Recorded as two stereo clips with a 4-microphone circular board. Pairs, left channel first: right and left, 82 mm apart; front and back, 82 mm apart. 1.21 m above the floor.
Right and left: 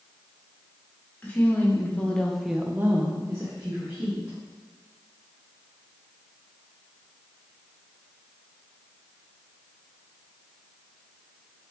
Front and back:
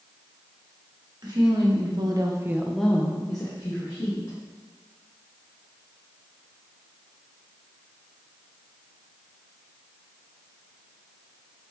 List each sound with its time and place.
1.2 s a woman speaking: 155° right, 1.5 m; by 4.4 s 35° left, 1.7 m